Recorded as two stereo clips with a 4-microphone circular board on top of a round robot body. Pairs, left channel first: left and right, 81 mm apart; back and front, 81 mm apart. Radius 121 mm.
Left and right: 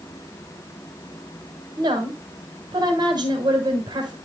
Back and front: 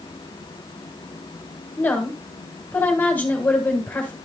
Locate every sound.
1.8 s a woman speaking: 110° right, 3 m